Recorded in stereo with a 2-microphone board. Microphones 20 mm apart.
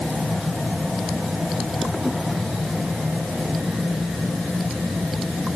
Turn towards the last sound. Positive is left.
No sound to turn to.